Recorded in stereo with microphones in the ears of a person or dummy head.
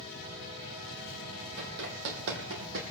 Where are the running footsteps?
65° right (ahead or behind), 3 m; by 2.8 s 55° right (ahead or behind), 3 m.